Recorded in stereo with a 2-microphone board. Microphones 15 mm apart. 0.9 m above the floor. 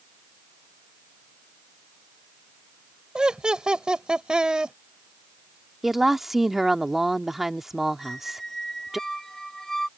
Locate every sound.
3.1 s laughter: 70° right (ahead or behind)
5.8 s a woman speaking: 30° right (ahead or behind)
8.0 s a squeak: 25° left (ahead or behind)